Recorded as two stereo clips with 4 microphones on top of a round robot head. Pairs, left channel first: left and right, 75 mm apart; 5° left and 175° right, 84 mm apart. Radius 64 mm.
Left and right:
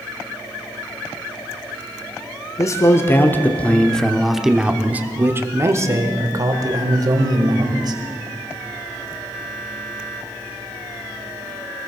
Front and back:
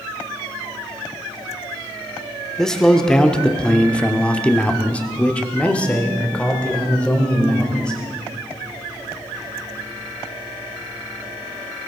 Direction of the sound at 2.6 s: 85° left.